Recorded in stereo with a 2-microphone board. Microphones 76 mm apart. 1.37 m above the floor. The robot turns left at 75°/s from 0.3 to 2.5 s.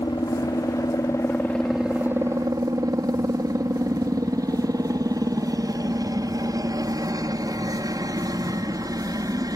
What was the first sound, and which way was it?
A helicopter, 105° left.